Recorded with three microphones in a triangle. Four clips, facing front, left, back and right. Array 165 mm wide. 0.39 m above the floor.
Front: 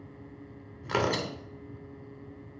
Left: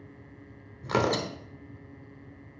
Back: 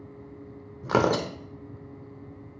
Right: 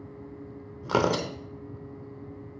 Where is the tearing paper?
160° right, 0.6 m.